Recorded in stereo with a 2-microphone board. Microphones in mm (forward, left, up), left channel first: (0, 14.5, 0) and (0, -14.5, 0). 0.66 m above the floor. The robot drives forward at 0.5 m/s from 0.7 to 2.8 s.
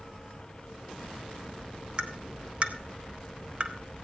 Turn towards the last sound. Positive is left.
turn(degrees=-40)  # may be behind; listen again after turning